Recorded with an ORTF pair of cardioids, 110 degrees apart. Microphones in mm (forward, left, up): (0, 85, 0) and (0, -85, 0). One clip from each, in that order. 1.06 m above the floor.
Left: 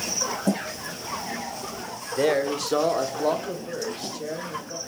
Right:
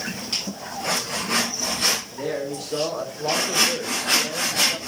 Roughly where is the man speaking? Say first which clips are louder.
Left 5 dB; ahead left.